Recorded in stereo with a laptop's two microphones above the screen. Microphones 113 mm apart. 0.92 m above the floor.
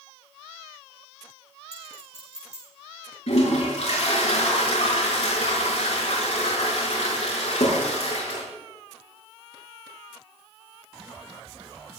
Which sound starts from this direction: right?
A clink, at 1.7 s.